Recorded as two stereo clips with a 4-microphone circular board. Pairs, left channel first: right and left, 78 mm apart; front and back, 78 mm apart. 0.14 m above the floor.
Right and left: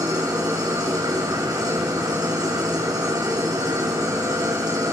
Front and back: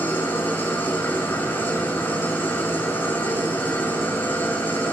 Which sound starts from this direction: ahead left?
An engine running, at 0.0 s.